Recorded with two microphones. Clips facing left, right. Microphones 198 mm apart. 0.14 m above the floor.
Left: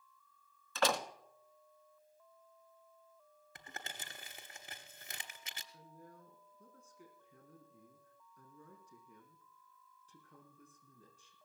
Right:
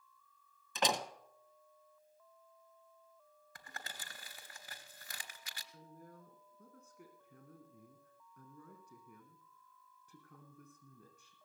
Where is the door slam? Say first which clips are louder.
Left 2 dB; 20° right (ahead or behind), 1.2 m.